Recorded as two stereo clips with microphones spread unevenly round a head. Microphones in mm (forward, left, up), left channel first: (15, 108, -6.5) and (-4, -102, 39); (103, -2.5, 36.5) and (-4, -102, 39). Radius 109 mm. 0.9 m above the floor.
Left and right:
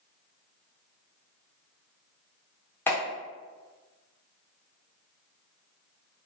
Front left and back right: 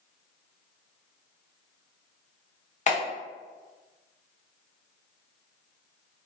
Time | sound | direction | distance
2.9 | a clap | 5° left | 1.0 m